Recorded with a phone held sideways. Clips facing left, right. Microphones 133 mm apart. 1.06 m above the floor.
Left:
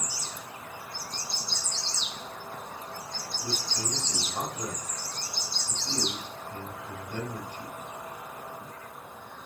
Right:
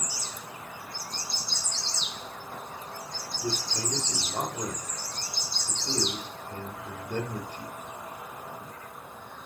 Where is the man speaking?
55° right (ahead or behind), 2.5 m.